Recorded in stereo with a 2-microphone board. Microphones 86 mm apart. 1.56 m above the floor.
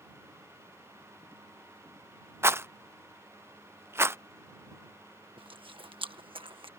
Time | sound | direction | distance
2.4 | a rattle | 30° right (ahead or behind) | ?
5.4 | chewing | 85° right | ?